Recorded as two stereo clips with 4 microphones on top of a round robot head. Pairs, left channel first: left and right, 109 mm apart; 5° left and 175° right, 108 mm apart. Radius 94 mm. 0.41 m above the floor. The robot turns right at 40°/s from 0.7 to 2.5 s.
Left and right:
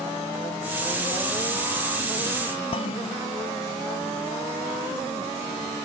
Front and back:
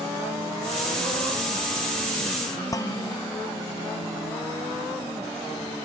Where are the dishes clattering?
60° left.